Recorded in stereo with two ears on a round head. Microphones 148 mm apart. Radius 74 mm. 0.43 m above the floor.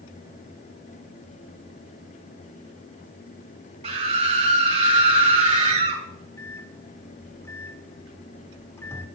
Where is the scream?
40° right (ahead or behind), 2.5 m.